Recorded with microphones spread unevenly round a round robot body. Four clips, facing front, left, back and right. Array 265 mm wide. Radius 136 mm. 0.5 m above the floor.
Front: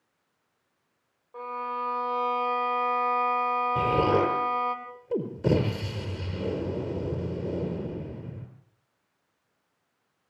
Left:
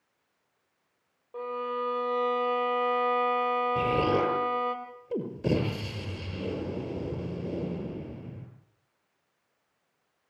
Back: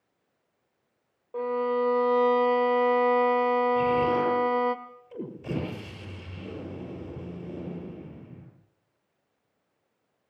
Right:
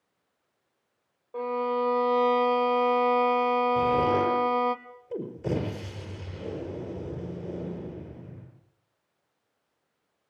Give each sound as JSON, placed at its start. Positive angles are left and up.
{"t": 1.3, "sound": "a violin", "azimuth_deg": -165, "distance_m": 1.9}
{"t": 3.8, "sound": "an explosion", "azimuth_deg": 20, "distance_m": 5.5}